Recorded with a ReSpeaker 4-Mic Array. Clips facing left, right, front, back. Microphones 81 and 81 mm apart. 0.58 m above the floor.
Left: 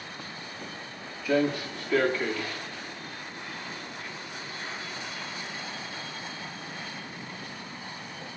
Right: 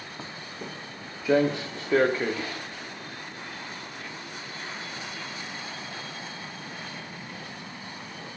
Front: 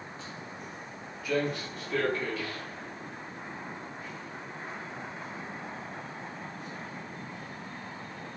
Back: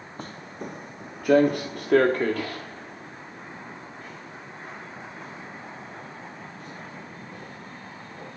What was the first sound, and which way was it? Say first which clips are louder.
Footsteps: right 4 dB, back 5 dB; 155° right.